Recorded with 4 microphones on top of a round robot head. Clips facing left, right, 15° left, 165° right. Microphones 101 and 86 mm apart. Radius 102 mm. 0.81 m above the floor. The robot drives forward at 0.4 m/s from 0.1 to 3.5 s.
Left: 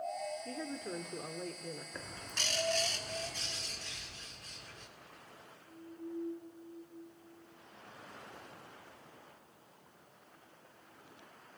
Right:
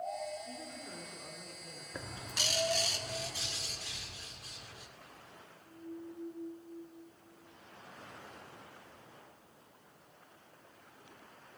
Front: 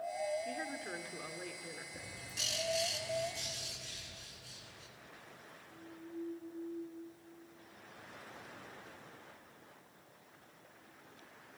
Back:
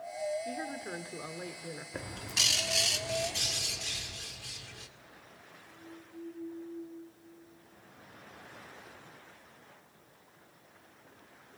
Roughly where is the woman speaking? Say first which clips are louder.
Left 5 dB, back 3 dB; behind left.